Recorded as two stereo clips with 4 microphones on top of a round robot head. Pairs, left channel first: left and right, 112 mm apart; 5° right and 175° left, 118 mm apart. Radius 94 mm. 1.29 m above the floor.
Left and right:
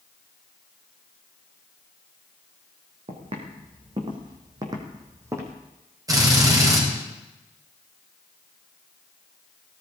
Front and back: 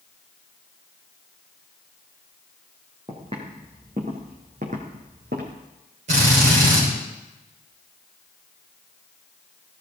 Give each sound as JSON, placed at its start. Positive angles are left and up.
{"t": 3.1, "sound": "footsteps", "azimuth_deg": -125, "distance_m": 3.5}
{"t": 6.1, "sound": "a drill", "azimuth_deg": -150, "distance_m": 6.5}